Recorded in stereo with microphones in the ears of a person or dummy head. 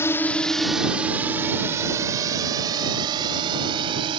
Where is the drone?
15° left (ahead or behind); by 4.2 s 30° right (ahead or behind).